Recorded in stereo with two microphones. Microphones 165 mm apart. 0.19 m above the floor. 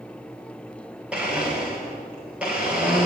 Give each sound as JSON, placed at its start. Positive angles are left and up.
{"t": 1.1, "sound": "a blender", "side_deg": -5, "distance_m": 6.5}